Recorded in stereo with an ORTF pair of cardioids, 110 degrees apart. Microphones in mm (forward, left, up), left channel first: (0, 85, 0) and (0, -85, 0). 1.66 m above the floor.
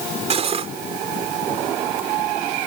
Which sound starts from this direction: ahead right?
Cutlery clinking, at 0.3 s.